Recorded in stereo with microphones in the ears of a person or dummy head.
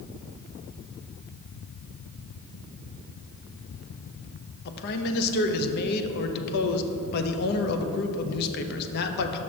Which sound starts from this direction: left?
A man speaking, at 4.7 s.